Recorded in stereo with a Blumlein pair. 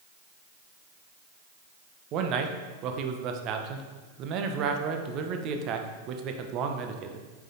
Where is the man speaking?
35° right, 1.0 m.